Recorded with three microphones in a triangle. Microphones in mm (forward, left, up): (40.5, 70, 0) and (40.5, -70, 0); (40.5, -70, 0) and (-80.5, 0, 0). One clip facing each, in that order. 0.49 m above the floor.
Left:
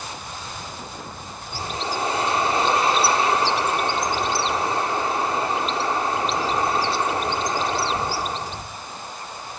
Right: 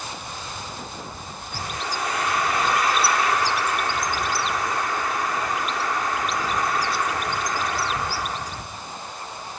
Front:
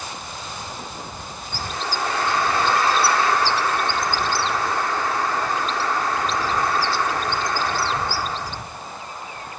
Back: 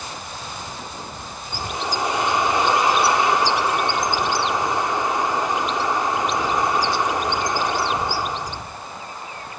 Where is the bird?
100° left.